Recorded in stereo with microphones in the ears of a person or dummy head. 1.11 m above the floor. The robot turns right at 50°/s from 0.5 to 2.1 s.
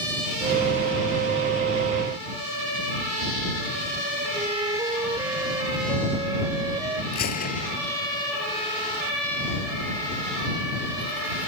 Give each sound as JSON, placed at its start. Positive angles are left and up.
{"t": 4.3, "sound": "a flute", "side_deg": -25}
{"t": 7.1, "sound": "a gunshot", "side_deg": 50}